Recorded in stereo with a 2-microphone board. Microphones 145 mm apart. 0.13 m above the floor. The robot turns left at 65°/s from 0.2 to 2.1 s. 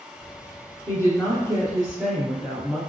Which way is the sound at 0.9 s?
20° left (ahead or behind).